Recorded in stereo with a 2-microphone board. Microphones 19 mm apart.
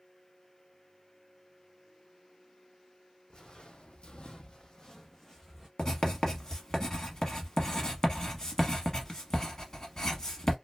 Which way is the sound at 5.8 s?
35° left (ahead or behind).